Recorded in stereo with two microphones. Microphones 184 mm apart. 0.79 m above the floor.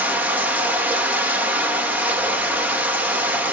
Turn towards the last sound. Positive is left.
turn(degrees=-10)  # may be behind; listen again after turning